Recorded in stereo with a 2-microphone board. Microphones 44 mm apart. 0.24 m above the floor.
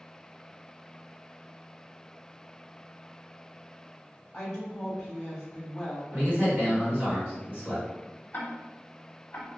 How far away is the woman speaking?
About 1.3 m.